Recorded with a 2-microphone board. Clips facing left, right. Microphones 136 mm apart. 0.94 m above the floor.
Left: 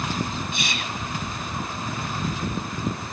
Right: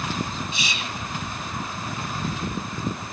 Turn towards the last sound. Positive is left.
turn(degrees=55)  # may be behind; listen again after turning